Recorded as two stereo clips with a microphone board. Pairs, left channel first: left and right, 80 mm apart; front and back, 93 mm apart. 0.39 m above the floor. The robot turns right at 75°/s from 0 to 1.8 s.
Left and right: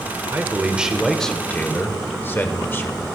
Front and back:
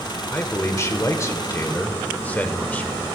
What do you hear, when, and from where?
0.3 s a man speaking: 55° right, 1.0 m; by 3.0 s 55° left, 1.0 m